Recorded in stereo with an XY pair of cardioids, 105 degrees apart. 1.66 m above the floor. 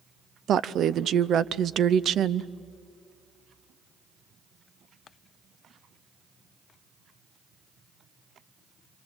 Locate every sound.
0.5 s a woman speaking: 60° right, 0.6 m